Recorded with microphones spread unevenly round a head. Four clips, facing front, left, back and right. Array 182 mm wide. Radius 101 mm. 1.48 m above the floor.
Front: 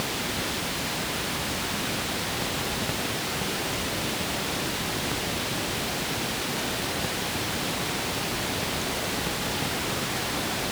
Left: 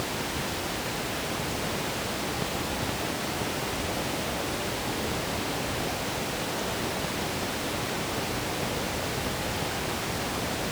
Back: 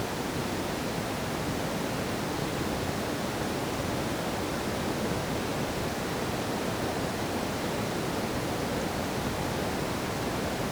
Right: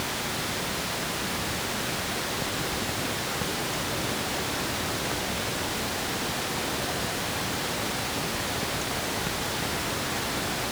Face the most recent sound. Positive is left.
No sound to turn to.